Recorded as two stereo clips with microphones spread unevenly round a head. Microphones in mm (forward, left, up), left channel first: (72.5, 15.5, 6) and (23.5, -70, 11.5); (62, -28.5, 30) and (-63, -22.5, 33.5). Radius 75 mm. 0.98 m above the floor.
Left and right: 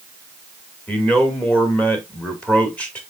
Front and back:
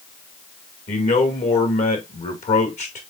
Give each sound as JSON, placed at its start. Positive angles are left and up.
{"t": 0.9, "sound": "a man speaking", "azimuth_deg": -15, "distance_m": 2.0}